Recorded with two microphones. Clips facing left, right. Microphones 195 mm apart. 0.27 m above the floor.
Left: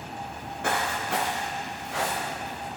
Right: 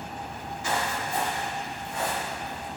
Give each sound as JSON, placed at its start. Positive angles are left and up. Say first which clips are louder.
{"t": 0.3, "sound": "footsteps", "louder": "left 2 dB", "side_deg": 45, "distance_m": 1.8}